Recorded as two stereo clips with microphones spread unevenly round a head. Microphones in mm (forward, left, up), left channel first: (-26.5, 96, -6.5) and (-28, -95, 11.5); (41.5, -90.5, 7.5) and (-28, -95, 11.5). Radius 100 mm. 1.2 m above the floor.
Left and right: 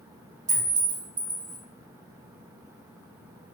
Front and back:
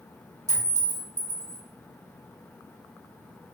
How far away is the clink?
About 1.8 m.